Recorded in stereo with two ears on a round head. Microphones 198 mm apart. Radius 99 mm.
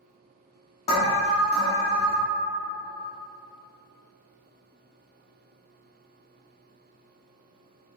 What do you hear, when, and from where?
0.9 s an alarm: 30° left (ahead or behind), 0.6 m